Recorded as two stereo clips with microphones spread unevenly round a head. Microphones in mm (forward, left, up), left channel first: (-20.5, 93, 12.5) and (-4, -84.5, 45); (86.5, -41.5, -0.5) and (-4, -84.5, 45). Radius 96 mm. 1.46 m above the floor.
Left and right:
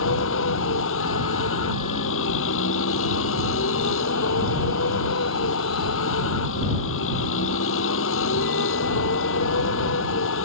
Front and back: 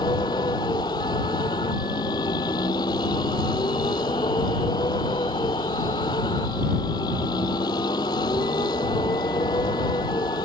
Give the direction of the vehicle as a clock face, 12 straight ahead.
9 o'clock.